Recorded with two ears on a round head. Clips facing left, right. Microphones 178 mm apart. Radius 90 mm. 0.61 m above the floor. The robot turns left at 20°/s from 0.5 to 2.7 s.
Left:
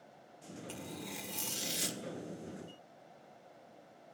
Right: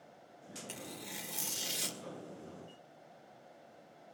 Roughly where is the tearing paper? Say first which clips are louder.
Left 3 dB; right.